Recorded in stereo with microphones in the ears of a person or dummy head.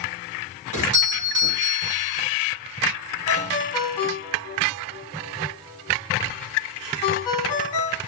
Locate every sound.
0.7 s a doorbell: 75° right (ahead or behind), 2 m
3.3 s a ringtone: 20° left (ahead or behind), 1.4 m